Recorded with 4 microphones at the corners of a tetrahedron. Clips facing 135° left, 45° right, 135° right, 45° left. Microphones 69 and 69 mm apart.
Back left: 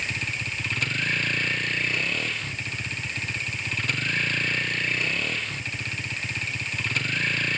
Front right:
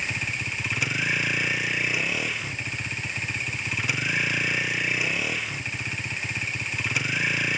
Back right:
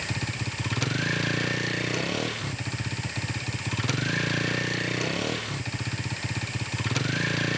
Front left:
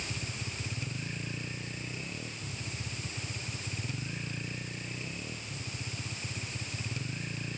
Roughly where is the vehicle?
Behind right.